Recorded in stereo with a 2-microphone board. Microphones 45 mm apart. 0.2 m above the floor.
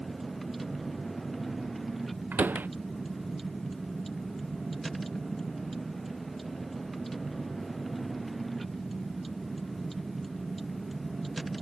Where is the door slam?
45° right (ahead or behind).